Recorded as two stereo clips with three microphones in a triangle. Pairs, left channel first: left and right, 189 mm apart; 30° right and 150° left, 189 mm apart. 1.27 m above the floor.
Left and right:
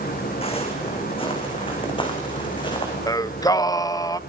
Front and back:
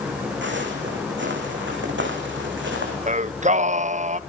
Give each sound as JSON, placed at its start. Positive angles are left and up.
{"t": 0.4, "sound": "footsteps", "azimuth_deg": 150, "distance_m": 5.5}
{"t": 3.1, "sound": "singing", "azimuth_deg": 145, "distance_m": 0.5}